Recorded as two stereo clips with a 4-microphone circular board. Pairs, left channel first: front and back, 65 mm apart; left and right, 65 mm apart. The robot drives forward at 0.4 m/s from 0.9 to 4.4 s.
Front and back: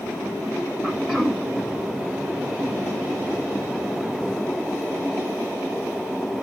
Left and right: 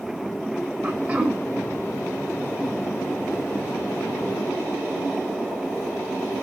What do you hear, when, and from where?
0.8 s throat clearing: 70° right, 1.5 m; by 1.4 s 95° right, 1.4 m